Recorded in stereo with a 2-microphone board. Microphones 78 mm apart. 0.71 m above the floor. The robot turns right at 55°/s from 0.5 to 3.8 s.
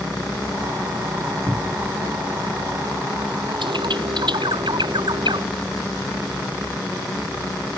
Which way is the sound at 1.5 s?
30° right (ahead or behind).